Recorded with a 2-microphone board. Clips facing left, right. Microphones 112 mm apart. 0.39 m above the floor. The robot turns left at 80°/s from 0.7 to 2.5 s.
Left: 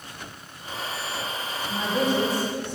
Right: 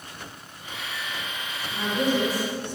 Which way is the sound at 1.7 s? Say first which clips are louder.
Even; 135° left.